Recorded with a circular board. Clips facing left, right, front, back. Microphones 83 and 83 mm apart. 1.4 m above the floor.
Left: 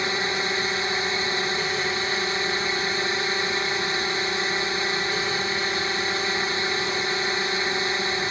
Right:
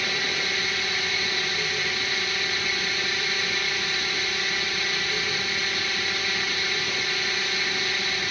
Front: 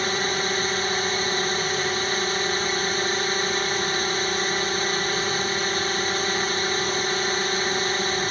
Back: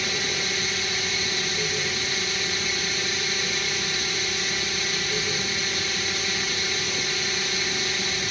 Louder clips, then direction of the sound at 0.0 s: Left 3 dB, front 5 dB; 35° left.